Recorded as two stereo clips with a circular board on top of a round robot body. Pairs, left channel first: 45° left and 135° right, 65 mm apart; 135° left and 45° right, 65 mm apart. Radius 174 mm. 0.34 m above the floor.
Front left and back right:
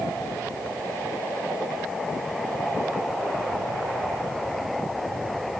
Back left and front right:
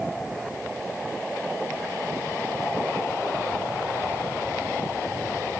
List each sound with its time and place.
Only background noise.